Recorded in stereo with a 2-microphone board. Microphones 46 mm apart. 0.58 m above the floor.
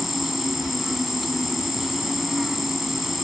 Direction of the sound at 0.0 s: 5° right (ahead or behind).